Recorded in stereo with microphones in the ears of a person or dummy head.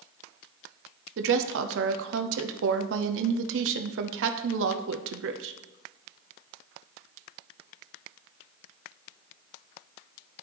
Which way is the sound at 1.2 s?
75° right (ahead or behind).